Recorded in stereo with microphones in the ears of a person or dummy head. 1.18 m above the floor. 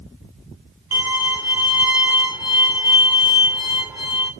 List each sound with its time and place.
0.9 s a violin: 15° right (ahead or behind), 1.9 m